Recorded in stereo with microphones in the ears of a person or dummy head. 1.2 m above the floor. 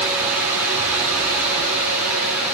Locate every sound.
Only background noise.